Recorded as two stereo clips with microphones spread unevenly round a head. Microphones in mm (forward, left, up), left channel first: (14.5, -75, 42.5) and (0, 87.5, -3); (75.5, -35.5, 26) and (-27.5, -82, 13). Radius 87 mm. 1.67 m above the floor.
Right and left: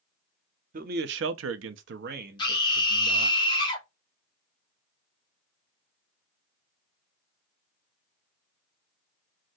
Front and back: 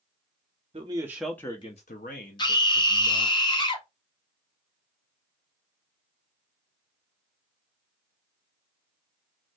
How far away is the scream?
About 1.4 m.